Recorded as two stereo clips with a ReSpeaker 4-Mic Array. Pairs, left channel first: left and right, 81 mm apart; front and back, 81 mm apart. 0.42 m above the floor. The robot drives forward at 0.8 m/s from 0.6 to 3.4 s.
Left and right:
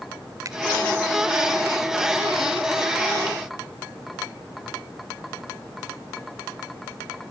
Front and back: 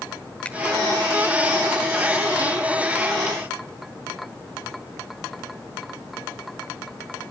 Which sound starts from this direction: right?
A finger snap, at 0.5 s.